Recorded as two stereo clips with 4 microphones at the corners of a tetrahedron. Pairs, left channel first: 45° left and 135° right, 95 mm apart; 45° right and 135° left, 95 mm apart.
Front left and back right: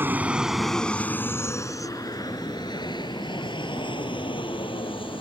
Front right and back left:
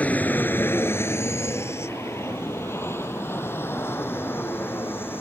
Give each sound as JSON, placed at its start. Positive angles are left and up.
{"t": 0.0, "sound": "an aircraft", "azimuth_deg": -100}